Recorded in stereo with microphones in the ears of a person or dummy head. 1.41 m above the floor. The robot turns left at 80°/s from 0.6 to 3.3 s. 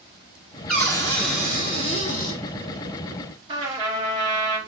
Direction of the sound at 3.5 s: 30° right (ahead or behind).